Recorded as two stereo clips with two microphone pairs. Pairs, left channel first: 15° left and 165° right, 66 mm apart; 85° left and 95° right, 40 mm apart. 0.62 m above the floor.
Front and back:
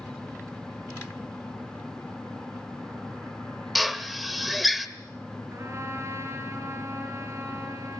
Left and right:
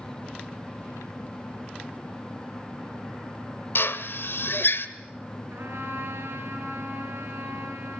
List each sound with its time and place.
3.8 s a drill: 105° left, 1.9 m
5.5 s a trumpet: 120° right, 8.5 m